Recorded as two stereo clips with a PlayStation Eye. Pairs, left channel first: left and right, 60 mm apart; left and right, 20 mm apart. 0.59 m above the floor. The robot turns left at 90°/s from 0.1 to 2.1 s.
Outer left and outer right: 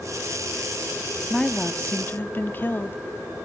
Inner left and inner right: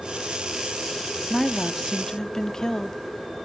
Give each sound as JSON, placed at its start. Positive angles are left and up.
{"t": 1.3, "sound": "a woman speaking", "azimuth_deg": 165, "distance_m": 0.8}